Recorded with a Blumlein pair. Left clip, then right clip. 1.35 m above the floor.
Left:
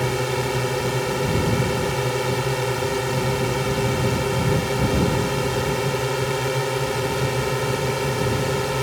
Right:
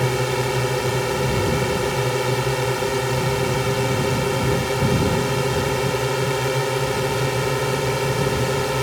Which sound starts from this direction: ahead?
A drone, at 0.0 s.